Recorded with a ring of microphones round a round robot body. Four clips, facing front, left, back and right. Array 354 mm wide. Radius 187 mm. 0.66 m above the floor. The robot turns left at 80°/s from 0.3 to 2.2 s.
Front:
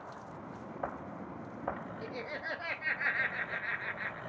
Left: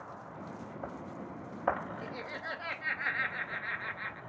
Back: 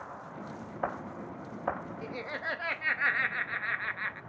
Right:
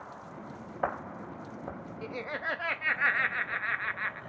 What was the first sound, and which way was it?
Laughter, 105° right.